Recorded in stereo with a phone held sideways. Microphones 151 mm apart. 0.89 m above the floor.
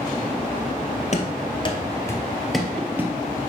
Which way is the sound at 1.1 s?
50° left (ahead or behind).